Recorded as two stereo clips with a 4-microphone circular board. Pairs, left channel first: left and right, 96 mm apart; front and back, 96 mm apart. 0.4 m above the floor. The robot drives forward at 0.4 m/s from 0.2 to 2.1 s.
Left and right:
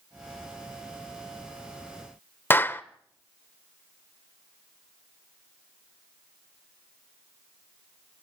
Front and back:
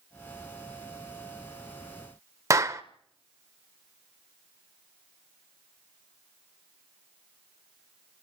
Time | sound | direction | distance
2.5 | a clap | 145° left | 0.9 m